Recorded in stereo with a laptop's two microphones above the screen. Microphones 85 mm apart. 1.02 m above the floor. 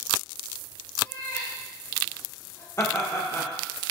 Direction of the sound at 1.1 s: 30° left (ahead or behind).